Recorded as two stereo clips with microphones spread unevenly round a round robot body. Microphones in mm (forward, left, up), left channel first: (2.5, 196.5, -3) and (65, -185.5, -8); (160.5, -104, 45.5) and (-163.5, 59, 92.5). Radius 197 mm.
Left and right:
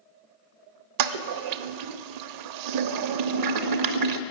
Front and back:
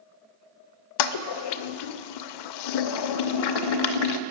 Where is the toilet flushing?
40° right, 0.6 m.